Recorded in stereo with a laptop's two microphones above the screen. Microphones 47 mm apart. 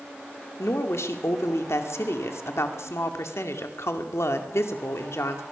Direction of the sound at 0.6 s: 75° left (ahead or behind).